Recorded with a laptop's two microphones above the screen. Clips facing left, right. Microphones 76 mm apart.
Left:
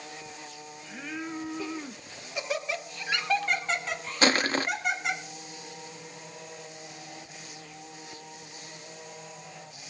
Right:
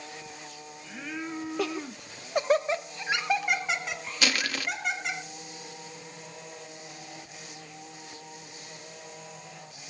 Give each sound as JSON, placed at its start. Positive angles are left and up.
{"t": 1.6, "sound": "laughter", "side_deg": -70, "distance_m": 0.8}
{"t": 4.2, "sound": "crushing", "side_deg": 35, "distance_m": 0.5}